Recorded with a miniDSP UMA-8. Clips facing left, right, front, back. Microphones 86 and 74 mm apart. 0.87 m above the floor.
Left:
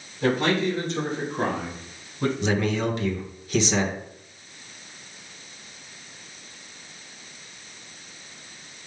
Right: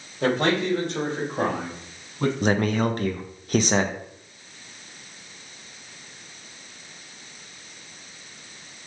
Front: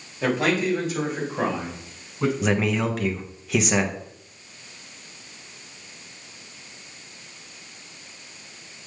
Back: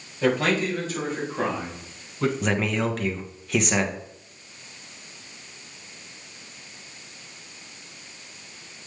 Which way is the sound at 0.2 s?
80° right.